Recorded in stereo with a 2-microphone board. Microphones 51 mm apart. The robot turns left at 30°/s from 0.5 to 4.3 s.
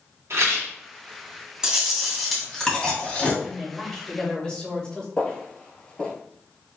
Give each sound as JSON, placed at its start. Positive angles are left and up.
{"t": 0.3, "sound": "a rattle", "side_deg": -65, "distance_m": 2.5}
{"t": 1.6, "sound": "chewing", "azimuth_deg": -165, "distance_m": 1.9}
{"t": 3.4, "sound": "a man speaking", "side_deg": -5, "distance_m": 2.0}
{"t": 5.2, "sound": "footsteps", "side_deg": 20, "distance_m": 1.4}